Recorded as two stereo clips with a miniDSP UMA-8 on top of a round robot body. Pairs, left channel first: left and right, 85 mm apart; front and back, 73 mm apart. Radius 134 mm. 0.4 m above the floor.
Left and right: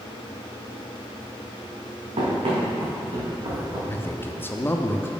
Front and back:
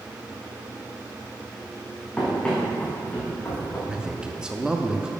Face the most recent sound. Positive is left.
turn(degrees=110)